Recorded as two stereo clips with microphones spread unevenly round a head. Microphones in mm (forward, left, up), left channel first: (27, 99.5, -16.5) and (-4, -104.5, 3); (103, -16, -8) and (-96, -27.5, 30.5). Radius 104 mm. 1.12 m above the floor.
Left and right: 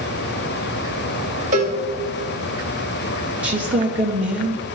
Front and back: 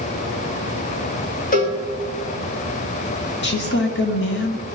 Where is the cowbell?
40° right, 2.5 m.